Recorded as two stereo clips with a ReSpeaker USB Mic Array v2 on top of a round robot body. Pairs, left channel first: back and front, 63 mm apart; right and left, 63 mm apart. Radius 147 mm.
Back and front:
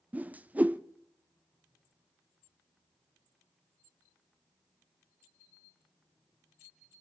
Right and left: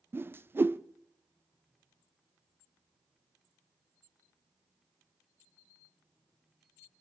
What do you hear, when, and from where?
0.1 s a whoosh: 55° left, 0.7 m